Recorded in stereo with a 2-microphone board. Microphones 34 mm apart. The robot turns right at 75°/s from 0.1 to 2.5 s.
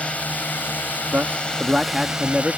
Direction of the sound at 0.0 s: 45° left.